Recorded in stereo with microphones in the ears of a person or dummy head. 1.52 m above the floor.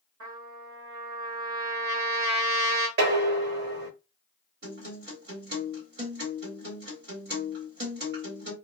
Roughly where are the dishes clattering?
Right.